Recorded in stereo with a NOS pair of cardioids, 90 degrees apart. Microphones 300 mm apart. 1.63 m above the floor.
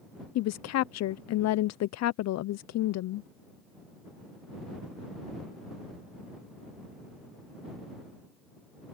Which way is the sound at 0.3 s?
60° left.